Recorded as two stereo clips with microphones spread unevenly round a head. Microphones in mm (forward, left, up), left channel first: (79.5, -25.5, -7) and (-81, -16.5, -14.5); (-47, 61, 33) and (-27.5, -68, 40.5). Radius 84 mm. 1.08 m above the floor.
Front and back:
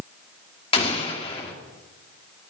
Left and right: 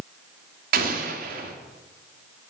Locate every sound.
0.7 s an explosion: 60° right, 2.5 m